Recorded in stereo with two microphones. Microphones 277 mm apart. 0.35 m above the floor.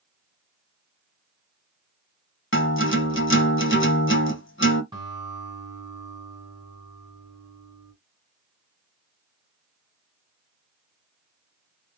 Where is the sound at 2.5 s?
45° left (ahead or behind), 1.0 m.